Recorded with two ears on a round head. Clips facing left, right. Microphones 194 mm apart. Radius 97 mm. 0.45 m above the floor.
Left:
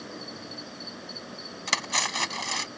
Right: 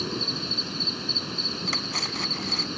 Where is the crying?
No crying in this recording.